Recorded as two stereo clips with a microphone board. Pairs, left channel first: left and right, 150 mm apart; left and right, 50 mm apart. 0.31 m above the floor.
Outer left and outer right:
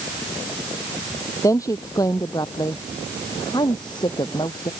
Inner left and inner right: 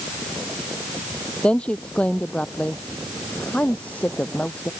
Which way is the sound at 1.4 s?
20° left (ahead or behind).